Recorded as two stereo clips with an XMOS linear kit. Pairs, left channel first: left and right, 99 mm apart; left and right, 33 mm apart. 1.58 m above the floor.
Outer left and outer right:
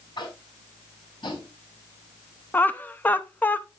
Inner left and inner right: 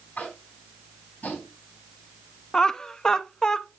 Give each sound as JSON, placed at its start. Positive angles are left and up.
{"t": 0.2, "sound": "tapping", "side_deg": 55, "distance_m": 3.0}
{"t": 2.5, "sound": "laughter", "side_deg": 20, "distance_m": 0.6}